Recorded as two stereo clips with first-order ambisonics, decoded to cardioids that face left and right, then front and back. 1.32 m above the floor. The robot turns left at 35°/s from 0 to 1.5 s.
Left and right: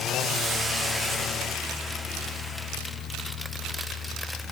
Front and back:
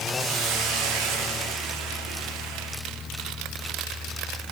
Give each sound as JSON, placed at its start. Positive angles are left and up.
{"t": 0.2, "sound": "a hiss", "azimuth_deg": -145, "distance_m": 1.5}